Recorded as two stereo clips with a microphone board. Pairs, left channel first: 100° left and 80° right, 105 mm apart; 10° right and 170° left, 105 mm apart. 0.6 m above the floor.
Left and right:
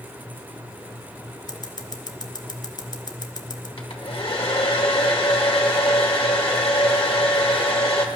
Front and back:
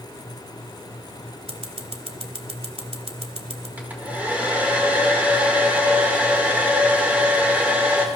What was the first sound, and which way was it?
Scissors, 150° left.